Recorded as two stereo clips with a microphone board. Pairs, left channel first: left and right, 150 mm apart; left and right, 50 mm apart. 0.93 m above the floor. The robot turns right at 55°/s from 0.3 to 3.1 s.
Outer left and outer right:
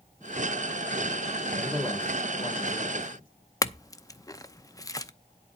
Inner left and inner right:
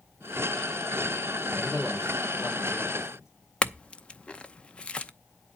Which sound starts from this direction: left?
A clink, at 3.6 s.